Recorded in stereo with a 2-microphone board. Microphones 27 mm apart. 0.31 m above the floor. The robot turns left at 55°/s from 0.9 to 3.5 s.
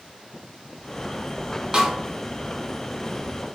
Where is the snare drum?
35° right (ahead or behind), 0.5 m; by 1.9 s 25° right (ahead or behind), 0.5 m.